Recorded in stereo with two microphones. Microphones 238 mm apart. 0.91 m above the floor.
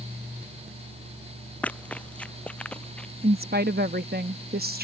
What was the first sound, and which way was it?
Running footsteps, 5° left (ahead or behind).